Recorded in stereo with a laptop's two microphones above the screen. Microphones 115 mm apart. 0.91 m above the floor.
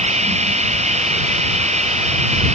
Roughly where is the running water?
Right.